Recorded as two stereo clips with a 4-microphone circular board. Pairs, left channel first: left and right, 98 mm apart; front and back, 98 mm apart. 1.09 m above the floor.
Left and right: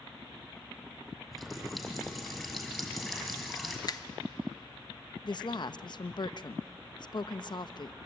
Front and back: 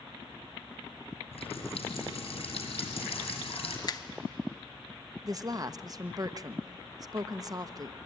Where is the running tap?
Straight ahead, 5 m.